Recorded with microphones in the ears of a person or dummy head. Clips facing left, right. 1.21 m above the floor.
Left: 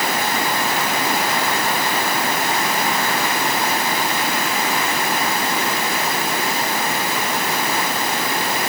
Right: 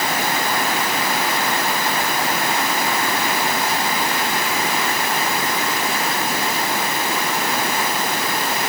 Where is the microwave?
I don't hear a microwave.